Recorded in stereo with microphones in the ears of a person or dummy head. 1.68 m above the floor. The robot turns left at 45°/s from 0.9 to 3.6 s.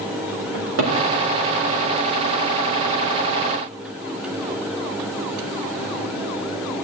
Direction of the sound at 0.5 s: 70° right (ahead or behind).